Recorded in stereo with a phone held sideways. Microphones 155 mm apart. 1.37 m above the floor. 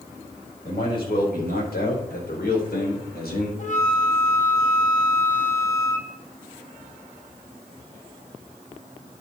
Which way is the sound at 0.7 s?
80° left.